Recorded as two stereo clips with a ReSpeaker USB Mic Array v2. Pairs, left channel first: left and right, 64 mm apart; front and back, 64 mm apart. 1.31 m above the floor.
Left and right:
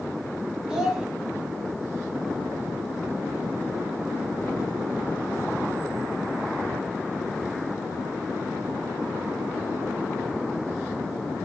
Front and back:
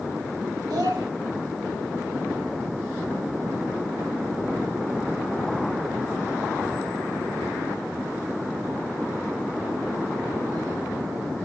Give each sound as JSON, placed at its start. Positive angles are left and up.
{"t": 0.7, "sound": "a child speaking", "azimuth_deg": -170, "distance_m": 1.3}